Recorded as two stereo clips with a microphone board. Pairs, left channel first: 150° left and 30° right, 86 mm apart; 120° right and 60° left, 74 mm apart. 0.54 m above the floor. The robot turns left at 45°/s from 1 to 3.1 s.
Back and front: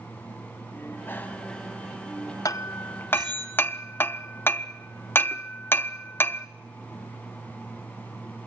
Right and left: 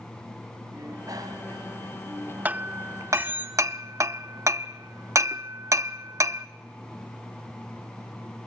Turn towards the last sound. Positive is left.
turn(degrees=90)